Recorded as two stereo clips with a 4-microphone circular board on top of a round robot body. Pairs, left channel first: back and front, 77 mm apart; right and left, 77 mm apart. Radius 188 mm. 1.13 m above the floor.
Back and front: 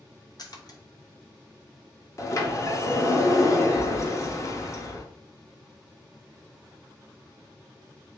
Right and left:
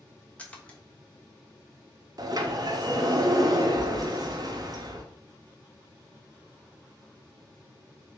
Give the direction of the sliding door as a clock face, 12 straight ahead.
8 o'clock.